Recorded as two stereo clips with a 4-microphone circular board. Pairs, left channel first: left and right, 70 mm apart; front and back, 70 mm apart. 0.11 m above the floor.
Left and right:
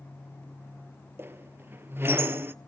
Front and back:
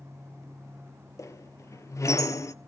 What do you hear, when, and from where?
1.2 s a squeak: 35° right, 0.5 m